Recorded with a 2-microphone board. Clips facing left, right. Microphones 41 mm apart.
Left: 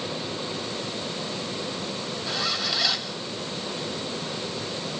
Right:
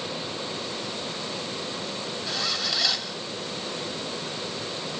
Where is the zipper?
5° left (ahead or behind), 2.5 m.